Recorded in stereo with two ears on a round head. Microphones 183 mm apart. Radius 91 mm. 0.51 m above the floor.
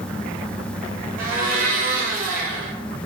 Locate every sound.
1.2 s a blender: 45° right (ahead or behind), 1.1 m